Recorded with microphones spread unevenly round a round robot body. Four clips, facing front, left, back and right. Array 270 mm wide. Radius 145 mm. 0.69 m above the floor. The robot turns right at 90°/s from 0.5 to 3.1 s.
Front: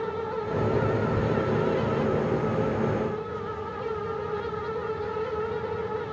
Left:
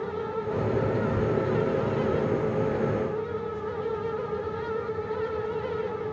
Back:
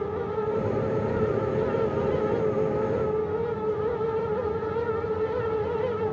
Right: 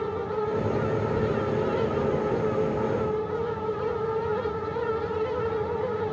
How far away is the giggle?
I don't hear a giggle.